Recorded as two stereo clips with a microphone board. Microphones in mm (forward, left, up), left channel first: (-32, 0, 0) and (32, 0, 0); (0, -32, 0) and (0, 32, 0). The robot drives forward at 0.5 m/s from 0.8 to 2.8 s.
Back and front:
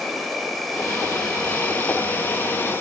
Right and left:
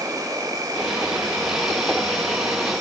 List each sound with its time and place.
0.0 s an insect: 90° left, 1.4 m; by 2.8 s 125° left, 1.7 m